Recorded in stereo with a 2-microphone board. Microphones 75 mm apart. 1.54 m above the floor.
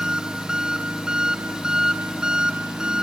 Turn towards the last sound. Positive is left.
turn(degrees=-10)  # may be behind; listen again after turning